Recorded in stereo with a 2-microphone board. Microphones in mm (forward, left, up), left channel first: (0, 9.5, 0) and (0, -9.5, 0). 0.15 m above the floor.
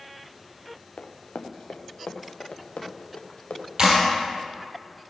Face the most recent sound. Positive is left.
turn(degrees=-35)  # may be behind; listen again after turning